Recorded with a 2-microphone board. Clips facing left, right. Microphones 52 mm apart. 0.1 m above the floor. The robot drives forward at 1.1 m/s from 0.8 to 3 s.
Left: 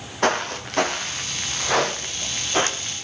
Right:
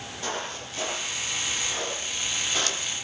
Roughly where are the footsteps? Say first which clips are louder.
Left 11 dB; left.